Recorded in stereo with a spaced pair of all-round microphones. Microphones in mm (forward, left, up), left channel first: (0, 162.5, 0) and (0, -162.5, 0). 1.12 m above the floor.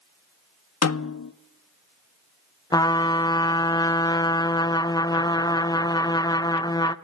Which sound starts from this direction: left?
A snare drum, at 0.8 s.